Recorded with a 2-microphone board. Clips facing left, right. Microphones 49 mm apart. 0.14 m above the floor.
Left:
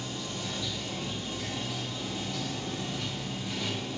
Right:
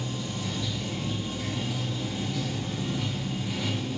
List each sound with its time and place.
0.0 s running water: 5° right (ahead or behind), 0.9 m